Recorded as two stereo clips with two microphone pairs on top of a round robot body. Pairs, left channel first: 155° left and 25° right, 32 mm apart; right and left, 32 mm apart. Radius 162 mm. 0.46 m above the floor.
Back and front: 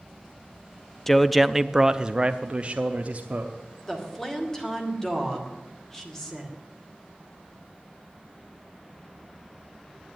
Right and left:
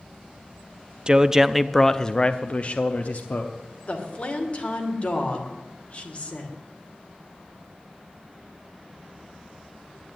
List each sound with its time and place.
1.1 s a man speaking: 85° left, 0.7 m; by 3.5 s 65° right, 1.2 m
3.9 s a woman speaking: 125° right, 2.5 m